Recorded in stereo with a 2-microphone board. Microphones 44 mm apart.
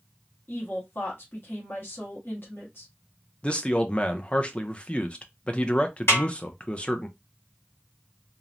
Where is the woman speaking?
55° left (ahead or behind), 1.0 m.